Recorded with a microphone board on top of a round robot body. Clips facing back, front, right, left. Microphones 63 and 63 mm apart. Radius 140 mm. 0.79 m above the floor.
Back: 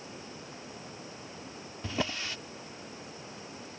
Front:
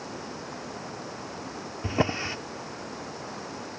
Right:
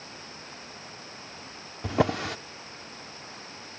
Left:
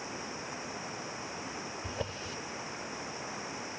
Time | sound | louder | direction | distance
0.0 | running water | front 8 dB, left 4 dB | 15° left | ?
1.8 | a drawer | front 7 dB, right 17 dB | 65° right | ?